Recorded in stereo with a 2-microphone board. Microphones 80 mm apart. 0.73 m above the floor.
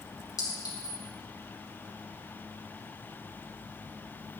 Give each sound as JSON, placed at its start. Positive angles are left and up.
{"t": 0.4, "sound": "a clink", "side_deg": 50, "distance_m": 3.5}